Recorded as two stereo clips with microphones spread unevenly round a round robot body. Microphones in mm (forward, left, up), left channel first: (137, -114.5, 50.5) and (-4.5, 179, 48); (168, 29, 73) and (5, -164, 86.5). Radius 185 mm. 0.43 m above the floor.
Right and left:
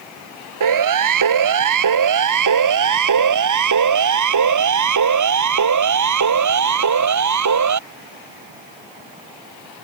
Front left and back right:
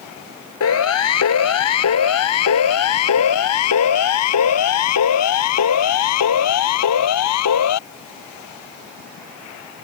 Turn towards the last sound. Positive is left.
turn(degrees=80)